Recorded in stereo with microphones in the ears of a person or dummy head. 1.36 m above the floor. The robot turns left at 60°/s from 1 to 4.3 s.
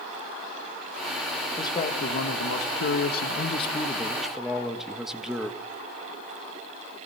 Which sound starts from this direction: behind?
A man speaking, at 1.6 s.